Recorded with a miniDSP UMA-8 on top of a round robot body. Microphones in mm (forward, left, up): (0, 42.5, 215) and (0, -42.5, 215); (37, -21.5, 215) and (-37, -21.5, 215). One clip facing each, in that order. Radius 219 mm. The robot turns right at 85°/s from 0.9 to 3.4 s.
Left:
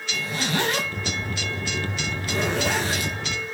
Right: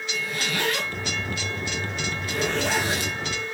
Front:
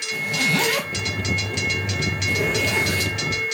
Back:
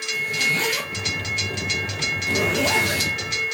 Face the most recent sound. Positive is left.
turn(degrees=-120)